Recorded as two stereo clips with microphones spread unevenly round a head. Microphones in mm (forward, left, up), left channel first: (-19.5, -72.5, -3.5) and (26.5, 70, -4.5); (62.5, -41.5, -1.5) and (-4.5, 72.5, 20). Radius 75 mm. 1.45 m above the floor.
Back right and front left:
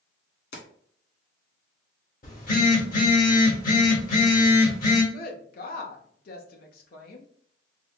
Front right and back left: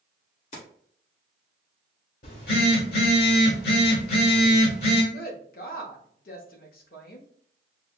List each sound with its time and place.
0.5 s keys jangling: 115° right, 1.9 m
2.2 s a phone buzzing: 70° right, 1.6 m
5.1 s a woman speaking: 80° right, 1.0 m